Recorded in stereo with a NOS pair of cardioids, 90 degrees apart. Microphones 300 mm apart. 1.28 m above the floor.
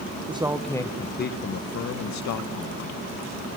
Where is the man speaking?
20° right, 0.8 m; by 2.9 s 70° left, 1.7 m.